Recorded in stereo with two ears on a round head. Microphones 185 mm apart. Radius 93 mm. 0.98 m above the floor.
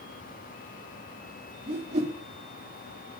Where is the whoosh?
30° right (ahead or behind), 1.7 m.